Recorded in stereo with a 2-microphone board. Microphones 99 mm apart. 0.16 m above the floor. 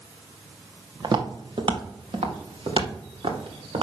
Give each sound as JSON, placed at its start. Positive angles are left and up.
{"t": 1.0, "sound": "footsteps", "side_deg": -50, "distance_m": 1.7}